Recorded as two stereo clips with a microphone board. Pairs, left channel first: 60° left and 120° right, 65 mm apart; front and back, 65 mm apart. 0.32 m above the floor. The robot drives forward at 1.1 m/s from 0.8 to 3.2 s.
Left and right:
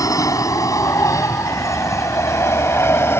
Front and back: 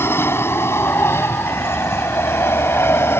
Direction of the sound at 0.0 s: 45° left.